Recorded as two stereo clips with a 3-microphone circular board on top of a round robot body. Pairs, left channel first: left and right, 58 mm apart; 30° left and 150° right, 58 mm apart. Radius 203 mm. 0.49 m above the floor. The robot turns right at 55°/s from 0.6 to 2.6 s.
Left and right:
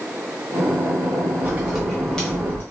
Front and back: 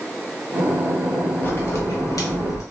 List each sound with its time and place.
1.4 s a crack: 30° right, 0.5 m; by 2.6 s 35° left, 0.5 m